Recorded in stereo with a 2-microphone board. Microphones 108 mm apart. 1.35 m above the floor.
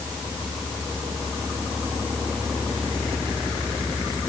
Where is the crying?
No crying in this recording.